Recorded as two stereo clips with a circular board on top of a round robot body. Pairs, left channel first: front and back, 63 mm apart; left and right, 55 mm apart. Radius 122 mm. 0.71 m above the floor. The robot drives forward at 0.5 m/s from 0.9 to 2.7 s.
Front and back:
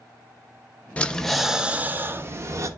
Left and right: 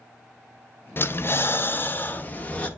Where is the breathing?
65° left, 0.7 m; by 2.7 s 150° left, 0.9 m.